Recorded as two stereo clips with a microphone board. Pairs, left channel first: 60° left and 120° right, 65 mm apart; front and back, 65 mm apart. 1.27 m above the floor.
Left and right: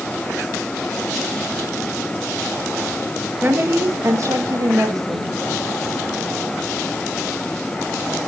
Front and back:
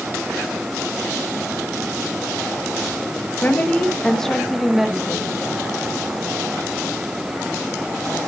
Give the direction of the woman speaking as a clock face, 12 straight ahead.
2 o'clock.